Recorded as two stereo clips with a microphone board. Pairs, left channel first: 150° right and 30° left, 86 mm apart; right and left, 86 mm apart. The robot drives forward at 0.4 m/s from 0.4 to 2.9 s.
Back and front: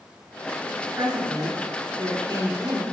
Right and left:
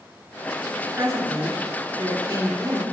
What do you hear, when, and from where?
1.0 s a woman speaking: 45° left, 3 m; by 2.8 s 60° left, 2.5 m